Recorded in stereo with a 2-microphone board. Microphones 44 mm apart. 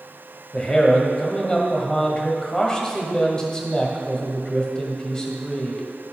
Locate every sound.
0.5 s a man speaking: 20° left (ahead or behind), 1.4 m